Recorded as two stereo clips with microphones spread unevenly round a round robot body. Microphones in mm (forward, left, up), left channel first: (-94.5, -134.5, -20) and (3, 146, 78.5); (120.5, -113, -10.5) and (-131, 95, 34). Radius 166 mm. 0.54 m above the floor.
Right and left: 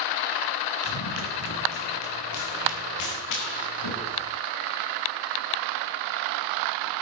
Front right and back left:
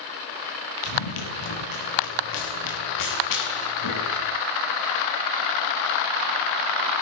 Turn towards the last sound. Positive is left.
turn(degrees=-80)